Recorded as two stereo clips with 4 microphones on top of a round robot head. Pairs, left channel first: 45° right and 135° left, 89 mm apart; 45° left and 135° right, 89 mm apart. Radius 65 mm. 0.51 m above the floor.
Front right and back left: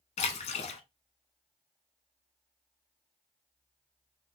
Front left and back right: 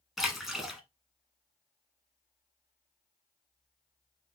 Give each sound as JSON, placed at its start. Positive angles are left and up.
{"t": 0.2, "sound": "a splash", "azimuth_deg": -45, "distance_m": 1.1}